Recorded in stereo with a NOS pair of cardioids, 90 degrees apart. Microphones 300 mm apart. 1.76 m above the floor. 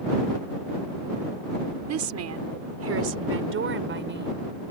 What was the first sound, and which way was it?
A woman speaking, 65° right.